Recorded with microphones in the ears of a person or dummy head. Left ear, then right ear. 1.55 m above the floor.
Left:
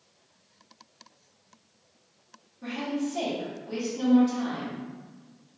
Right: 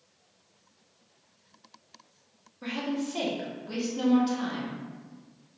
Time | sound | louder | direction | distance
2.6 | a woman speaking | left 1 dB | 50° right (ahead or behind) | 1.2 m